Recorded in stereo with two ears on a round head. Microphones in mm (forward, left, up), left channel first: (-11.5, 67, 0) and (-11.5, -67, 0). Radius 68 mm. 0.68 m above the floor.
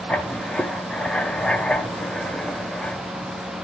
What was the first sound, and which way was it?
Writing, 5° left (ahead or behind).